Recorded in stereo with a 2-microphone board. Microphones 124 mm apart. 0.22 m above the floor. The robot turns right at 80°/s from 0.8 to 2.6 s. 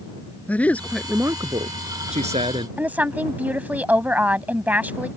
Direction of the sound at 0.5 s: 170° left.